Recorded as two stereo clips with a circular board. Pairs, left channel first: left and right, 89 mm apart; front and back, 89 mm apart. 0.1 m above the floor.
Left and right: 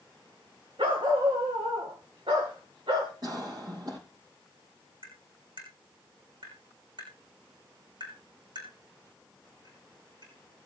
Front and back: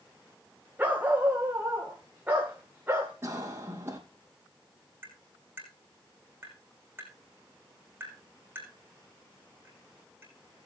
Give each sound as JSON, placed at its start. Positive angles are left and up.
{"t": 0.8, "sound": "a dog barking", "azimuth_deg": -105, "distance_m": 2.5}
{"t": 3.2, "sound": "a cough", "azimuth_deg": -120, "distance_m": 4.0}
{"t": 5.0, "sound": "tapping", "azimuth_deg": -110, "distance_m": 6.0}